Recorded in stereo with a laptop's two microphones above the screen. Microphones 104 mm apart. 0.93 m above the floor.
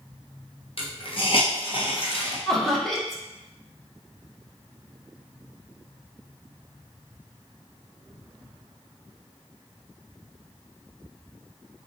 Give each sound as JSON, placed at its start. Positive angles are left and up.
{"t": 0.8, "sound": "a hiss", "side_deg": 50, "distance_m": 0.7}
{"t": 2.5, "sound": "laughter", "side_deg": 0, "distance_m": 0.8}